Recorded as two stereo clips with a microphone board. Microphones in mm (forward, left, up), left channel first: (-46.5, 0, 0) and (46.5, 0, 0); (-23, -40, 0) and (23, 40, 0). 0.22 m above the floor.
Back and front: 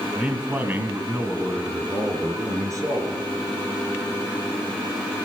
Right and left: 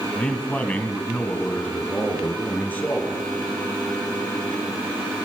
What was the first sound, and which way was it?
A man speaking, 60° right.